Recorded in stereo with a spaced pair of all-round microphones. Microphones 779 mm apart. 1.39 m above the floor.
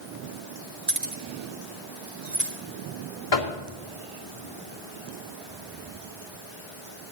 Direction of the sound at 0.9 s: 60° right (ahead or behind).